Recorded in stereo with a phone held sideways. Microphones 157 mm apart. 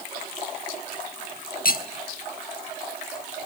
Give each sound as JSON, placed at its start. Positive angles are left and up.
{"t": 1.6, "sound": "cutlery clinking", "side_deg": 75, "distance_m": 1.1}